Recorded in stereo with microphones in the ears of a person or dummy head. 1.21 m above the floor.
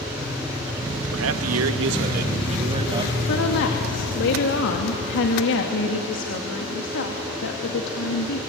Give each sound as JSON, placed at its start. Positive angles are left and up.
{"t": 1.1, "sound": "a man speaking", "side_deg": -70, "distance_m": 1.5}
{"t": 3.3, "sound": "a woman speaking", "side_deg": 65, "distance_m": 2.5}